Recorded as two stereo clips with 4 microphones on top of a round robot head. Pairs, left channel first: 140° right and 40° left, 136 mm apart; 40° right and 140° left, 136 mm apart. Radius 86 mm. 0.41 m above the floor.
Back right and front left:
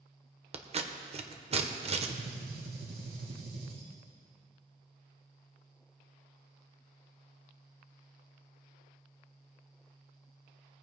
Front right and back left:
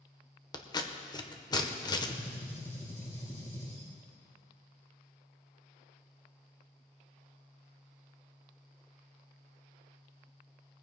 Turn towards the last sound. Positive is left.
turn(degrees=30)